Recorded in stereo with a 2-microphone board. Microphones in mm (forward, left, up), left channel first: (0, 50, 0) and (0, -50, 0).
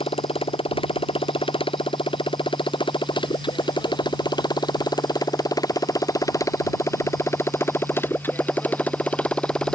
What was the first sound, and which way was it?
A motorcycle, 70° left (ahead or behind).